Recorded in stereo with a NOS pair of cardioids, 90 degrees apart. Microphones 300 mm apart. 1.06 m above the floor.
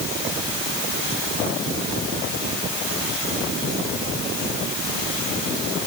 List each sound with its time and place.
Only background noise.